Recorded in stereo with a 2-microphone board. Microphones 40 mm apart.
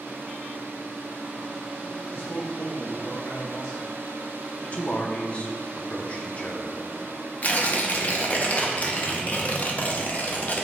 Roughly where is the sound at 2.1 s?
Left.